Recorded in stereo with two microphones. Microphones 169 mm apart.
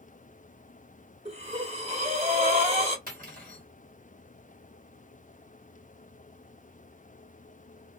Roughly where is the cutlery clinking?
Right.